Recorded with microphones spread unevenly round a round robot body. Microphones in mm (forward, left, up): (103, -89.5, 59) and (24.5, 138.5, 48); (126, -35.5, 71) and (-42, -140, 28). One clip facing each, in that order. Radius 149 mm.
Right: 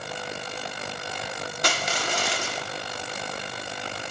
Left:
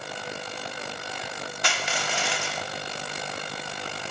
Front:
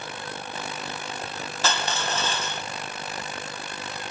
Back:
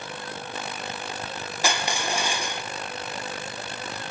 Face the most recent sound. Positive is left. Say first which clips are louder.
# right 3 dB, back 1 dB
turn(degrees=-95)